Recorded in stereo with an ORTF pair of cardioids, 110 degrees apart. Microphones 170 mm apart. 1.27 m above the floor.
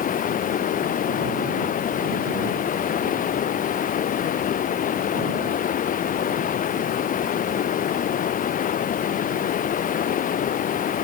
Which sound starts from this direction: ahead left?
Running water, at 0.0 s.